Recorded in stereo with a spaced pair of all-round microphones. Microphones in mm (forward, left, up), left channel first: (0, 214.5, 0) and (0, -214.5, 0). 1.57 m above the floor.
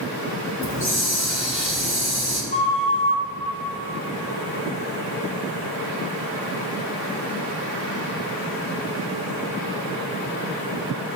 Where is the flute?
70° left (ahead or behind), 1.4 m.